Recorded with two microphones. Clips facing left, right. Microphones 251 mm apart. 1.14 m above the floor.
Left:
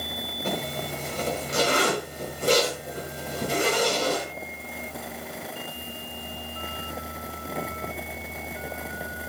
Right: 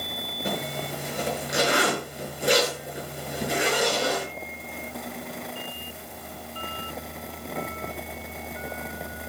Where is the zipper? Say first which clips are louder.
Even; 10° right (ahead or behind), 6 m.